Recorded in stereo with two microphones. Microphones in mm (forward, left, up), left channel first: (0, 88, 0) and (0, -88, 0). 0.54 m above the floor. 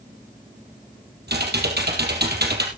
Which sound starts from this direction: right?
Typing on a keyboard, at 1.3 s.